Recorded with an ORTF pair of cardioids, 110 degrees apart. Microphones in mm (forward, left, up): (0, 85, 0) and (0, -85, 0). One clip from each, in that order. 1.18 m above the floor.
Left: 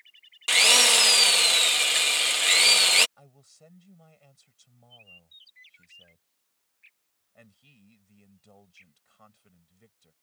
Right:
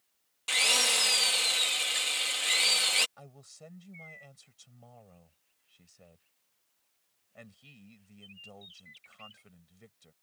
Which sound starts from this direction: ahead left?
A drill, at 0.5 s.